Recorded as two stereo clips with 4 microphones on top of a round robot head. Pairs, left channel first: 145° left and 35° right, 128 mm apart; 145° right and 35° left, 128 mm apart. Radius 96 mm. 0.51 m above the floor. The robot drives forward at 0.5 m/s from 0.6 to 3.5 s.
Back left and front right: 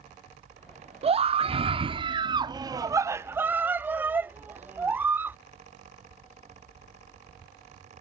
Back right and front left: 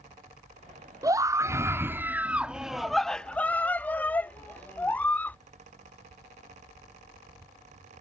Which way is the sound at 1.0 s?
20° right.